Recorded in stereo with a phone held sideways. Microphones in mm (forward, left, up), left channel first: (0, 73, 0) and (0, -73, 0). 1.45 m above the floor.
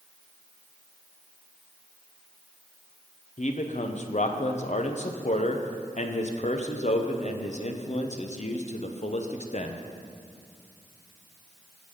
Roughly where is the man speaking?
Left.